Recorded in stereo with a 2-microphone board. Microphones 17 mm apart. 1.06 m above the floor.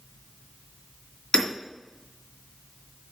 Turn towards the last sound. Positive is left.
turn(degrees=60)  # may be behind; listen again after turning